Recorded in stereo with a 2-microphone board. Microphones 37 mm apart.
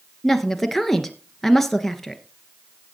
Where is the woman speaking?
5° left (ahead or behind), 1.6 m.